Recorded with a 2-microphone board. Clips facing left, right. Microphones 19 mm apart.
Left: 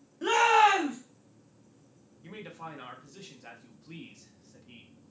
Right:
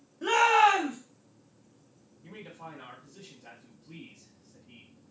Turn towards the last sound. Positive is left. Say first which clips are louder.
# left 2 dB
turn(degrees=40)  # may be behind; listen again after turning